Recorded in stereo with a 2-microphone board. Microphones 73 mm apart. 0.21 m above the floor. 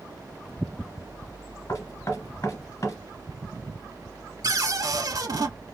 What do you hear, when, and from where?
1.7 s knocking: 45° left (ahead or behind), 1.8 m
4.4 s a cupboard door: 55° right (ahead or behind), 0.8 m